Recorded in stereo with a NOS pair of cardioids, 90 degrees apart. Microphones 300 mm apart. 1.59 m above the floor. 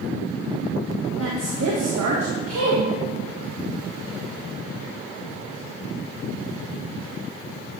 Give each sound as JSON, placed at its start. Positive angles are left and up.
{"t": 1.2, "sound": "a woman speaking", "azimuth_deg": -55, "distance_m": 2.0}